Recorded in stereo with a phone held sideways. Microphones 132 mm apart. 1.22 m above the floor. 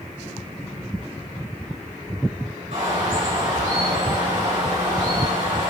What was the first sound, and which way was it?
A bird, 65° right (ahead or behind).